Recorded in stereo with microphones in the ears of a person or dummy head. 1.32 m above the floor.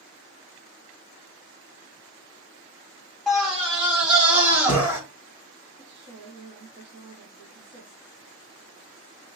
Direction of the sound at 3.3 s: Centre (ahead or behind).